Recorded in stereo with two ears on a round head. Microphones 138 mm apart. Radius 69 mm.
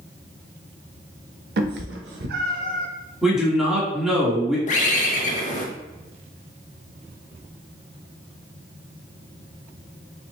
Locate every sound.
1.6 s a cat meowing: 70° right (ahead or behind), 0.6 m; by 2.9 s 50° right (ahead or behind), 1.0 m
3.2 s a man speaking: 5° right (ahead or behind), 1.5 m
4.7 s a bird: 50° left (ahead or behind), 0.7 m